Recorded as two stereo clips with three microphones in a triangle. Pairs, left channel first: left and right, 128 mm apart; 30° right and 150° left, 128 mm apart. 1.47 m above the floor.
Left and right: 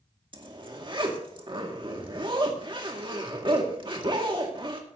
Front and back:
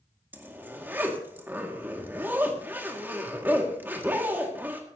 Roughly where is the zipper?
Behind right.